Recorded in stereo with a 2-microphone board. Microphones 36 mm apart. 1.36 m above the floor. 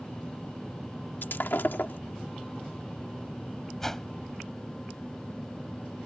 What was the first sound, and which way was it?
Breaking glass, 70° left (ahead or behind).